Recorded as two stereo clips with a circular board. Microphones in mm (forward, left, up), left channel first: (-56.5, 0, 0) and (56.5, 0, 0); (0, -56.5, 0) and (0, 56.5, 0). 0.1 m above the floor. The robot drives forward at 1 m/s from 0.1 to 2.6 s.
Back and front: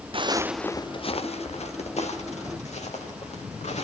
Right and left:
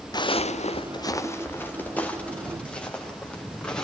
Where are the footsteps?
40° right, 1.2 m; by 3.9 s 170° right, 6.5 m.